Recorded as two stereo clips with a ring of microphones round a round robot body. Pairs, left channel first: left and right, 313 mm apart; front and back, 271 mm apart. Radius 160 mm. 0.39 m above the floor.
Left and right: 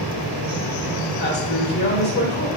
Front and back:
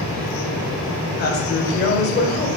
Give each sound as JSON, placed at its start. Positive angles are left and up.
{"t": 1.2, "sound": "a woman speaking", "azimuth_deg": 40, "distance_m": 1.8}